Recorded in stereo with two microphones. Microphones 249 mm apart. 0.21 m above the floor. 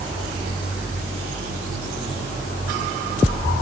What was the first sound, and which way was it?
Only background noise.